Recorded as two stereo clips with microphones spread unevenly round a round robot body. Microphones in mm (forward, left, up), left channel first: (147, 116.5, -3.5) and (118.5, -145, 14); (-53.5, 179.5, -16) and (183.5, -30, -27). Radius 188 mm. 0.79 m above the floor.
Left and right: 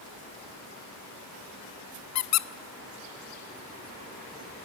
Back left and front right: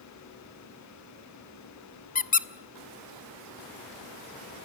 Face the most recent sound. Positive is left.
turn(degrees=75)